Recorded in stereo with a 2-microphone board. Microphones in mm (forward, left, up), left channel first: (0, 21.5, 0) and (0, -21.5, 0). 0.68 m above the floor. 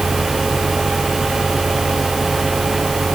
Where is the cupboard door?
No cupboard door in this recording.